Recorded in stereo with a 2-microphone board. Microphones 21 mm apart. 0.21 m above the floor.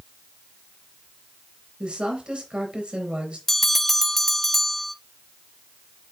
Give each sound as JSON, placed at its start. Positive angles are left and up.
{"t": 1.8, "sound": "a woman speaking", "side_deg": -60, "distance_m": 4.0}
{"t": 3.5, "sound": "a bell", "side_deg": 10, "distance_m": 0.5}